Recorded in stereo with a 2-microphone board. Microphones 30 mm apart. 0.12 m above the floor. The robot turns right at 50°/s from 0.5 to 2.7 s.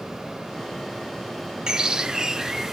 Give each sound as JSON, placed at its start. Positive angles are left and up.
{"t": 1.7, "sound": "a bird", "side_deg": -20, "distance_m": 0.8}